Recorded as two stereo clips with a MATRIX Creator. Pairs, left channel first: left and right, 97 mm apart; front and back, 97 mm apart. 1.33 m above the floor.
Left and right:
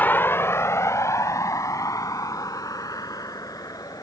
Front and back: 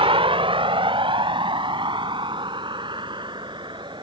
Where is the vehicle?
160° left; by 4.0 s 140° left.